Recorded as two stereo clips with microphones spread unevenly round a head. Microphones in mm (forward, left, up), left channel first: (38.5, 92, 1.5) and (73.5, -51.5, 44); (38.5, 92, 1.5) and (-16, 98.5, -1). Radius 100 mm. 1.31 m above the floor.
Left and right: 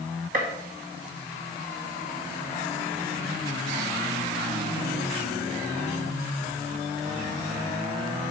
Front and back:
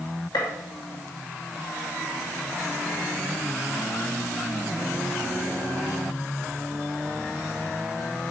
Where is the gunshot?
50° right, 1.9 m.